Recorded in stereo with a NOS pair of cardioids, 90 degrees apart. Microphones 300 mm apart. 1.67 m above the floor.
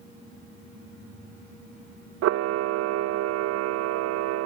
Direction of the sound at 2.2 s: 55° right.